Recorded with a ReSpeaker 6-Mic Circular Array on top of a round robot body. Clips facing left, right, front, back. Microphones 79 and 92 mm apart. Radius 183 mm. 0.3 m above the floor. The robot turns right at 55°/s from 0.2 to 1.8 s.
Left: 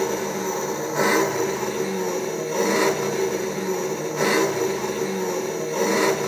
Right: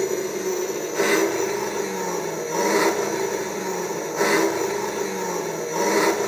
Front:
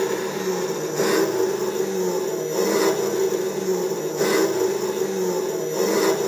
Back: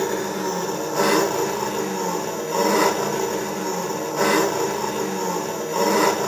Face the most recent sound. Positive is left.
turn(degrees=-155)